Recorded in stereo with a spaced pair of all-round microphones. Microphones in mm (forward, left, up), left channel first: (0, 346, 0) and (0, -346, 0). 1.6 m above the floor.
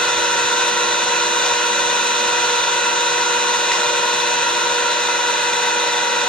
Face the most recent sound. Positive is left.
turn(degrees=0)  # may be behind; listen again after turning